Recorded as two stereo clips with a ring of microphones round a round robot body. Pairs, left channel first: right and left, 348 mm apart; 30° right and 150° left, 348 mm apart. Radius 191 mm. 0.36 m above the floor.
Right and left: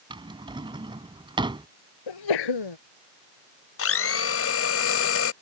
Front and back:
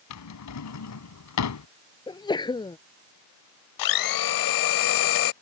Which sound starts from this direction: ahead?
A drawer, at 0.1 s.